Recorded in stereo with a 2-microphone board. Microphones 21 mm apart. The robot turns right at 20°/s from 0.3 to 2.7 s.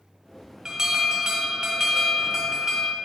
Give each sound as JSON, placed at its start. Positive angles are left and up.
{"t": 0.7, "sound": "an alarm", "azimuth_deg": -100, "distance_m": 1.5}